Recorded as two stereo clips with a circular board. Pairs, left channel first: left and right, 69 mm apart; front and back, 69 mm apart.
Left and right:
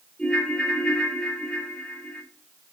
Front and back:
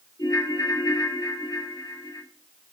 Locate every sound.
0.2 s a ringtone: 15° left, 3.5 m